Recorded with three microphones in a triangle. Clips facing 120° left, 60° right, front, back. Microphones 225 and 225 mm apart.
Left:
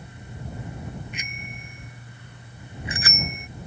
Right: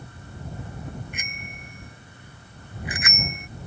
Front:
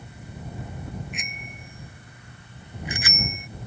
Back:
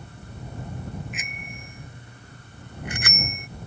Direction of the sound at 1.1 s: 90° right.